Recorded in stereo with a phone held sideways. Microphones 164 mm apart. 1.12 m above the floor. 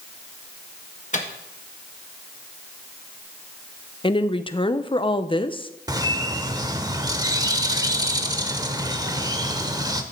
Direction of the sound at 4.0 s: 30° left (ahead or behind).